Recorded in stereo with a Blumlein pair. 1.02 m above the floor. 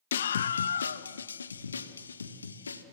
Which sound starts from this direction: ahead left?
A scream, at 0.1 s.